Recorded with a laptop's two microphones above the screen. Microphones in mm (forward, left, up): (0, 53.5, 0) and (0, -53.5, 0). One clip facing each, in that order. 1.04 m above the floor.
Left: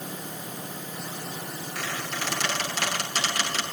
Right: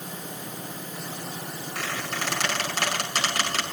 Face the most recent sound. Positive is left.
turn(degrees=-45)  # may be behind; listen again after turning